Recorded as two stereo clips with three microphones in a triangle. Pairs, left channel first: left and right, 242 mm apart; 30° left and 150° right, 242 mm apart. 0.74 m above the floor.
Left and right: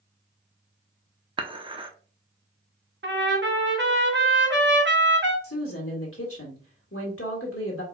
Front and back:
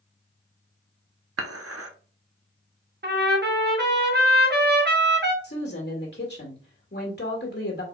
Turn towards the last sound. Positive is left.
turn(degrees=70)